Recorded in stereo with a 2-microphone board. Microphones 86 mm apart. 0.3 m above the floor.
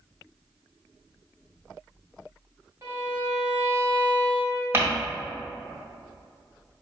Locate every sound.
2.8 s a violin: 35° right (ahead or behind), 1.6 m
4.7 s crumpling: 30° right (ahead or behind), 1.7 m